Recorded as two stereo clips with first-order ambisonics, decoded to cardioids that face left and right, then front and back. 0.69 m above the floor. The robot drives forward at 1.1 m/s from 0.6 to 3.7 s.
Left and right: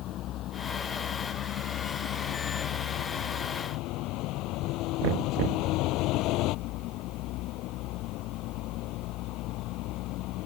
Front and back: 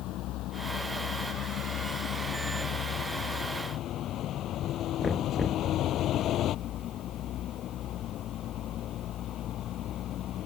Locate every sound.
0.0 s a vehicle: 40° left; by 10.5 s 50° left
5.0 s knocking: 80° right